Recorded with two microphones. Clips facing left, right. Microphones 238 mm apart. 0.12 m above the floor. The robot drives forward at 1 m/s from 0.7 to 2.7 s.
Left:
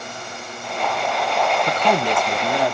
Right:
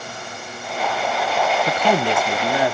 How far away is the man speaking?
About 1.1 m.